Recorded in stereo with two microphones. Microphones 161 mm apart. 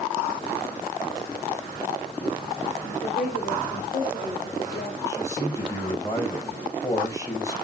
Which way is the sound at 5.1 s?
20° left (ahead or behind).